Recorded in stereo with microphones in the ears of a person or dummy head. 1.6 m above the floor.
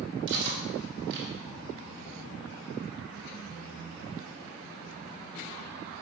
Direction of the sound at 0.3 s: 65° right (ahead or behind).